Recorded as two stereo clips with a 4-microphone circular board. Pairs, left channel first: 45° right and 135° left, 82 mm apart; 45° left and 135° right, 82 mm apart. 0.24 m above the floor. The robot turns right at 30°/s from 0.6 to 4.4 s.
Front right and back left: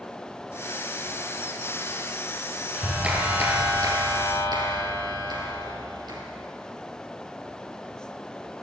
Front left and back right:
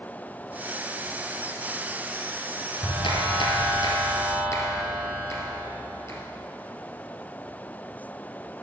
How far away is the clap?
About 5 m.